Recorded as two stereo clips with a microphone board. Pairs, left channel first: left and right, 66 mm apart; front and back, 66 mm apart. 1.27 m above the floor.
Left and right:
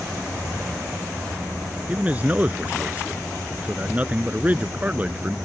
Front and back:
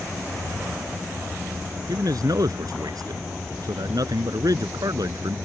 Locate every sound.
1.9 s a man speaking: 160° right